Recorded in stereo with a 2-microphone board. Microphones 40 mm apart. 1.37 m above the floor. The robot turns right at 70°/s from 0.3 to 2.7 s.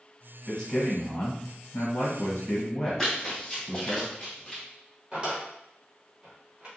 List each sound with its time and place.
0.5 s a man speaking: 5° left, 1.2 m; by 4.0 s 165° left, 1.2 m
3.0 s running footsteps: 10° left (ahead or behind), 1.6 m; by 4.6 s 20° left (ahead or behind), 1.4 m
5.1 s a drawer: 20° right (ahead or behind), 0.9 m